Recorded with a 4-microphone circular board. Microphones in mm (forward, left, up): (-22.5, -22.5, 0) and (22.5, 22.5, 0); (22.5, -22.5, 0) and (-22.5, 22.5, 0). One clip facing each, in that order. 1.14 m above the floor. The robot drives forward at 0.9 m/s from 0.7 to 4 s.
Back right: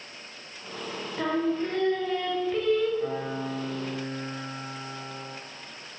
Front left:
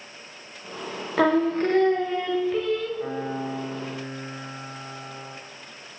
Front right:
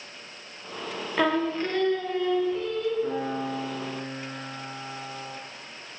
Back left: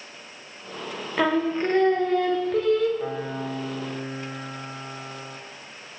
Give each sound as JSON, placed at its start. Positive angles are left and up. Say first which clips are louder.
{"t": 1.2, "sound": "singing", "louder": "front left 6 dB, back left 2 dB", "azimuth_deg": 45, "distance_m": 1.1}
{"t": 3.0, "sound": "a piano", "louder": "front left 1 dB, front right 1 dB", "azimuth_deg": 120, "distance_m": 4.0}